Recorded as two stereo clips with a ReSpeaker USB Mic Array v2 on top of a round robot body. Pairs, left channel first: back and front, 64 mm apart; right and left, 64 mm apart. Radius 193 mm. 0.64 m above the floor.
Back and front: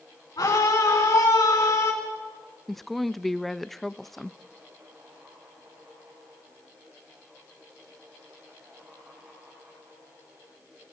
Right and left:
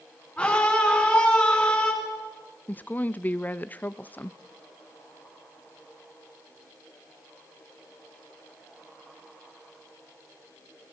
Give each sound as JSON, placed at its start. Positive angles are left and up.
{"t": 0.4, "sound": "a scream", "azimuth_deg": -160, "distance_m": 7.0}
{"t": 2.7, "sound": "a woman speaking", "azimuth_deg": -95, "distance_m": 0.8}